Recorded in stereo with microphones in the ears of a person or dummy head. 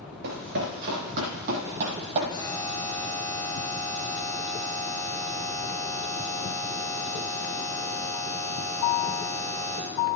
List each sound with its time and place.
0.2 s running footsteps: 60° right (ahead or behind), 3 m; by 2.2 s 40° right (ahead or behind), 1.8 m
2.3 s a buzzer: 20° left (ahead or behind), 5 m